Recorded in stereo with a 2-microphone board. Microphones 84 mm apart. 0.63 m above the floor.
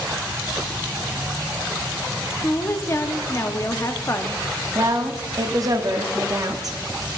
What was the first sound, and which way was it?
A woman speaking, 35° left (ahead or behind).